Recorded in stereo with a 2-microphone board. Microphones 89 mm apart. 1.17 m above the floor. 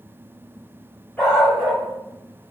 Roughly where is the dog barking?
Centre.